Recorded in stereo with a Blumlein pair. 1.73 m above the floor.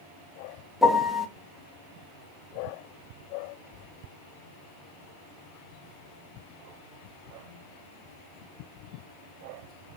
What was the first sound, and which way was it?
A piano, 5° left.